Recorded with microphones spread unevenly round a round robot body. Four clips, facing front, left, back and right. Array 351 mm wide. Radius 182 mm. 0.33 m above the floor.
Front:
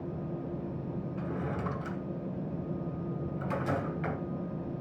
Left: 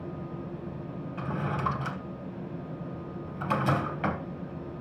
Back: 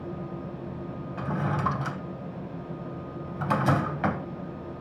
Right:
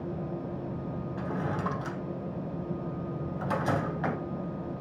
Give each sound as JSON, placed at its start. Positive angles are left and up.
{"t": 1.2, "sound": "a drawer", "azimuth_deg": 170, "distance_m": 3.0}